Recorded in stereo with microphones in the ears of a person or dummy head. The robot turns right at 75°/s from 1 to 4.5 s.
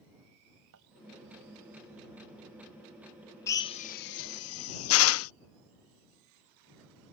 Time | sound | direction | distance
0.7 | a thud | 75° right (ahead or behind) | ?
3.5 | a drill | 20° left (ahead or behind) | ?